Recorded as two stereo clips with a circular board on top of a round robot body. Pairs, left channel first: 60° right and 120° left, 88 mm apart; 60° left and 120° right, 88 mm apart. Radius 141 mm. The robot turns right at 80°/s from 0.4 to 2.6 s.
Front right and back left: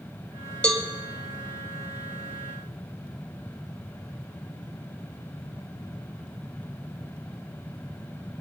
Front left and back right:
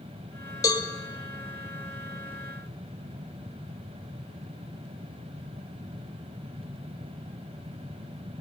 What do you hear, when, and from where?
0.6 s a cowbell: 15° left, 1.9 m; by 0.8 s 35° left, 1.9 m